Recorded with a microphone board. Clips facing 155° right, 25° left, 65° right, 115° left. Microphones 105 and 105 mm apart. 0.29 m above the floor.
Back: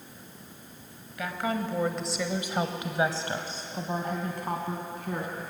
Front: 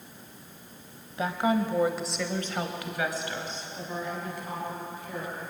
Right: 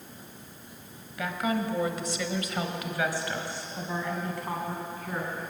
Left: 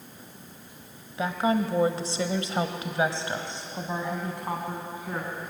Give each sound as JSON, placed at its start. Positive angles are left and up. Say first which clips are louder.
{"t": 1.2, "sound": "a woman speaking", "louder": "front 5 dB, left 4 dB", "azimuth_deg": 65, "distance_m": 1.5}